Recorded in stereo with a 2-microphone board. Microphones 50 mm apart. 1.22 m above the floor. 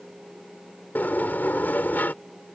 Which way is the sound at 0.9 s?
40° left (ahead or behind).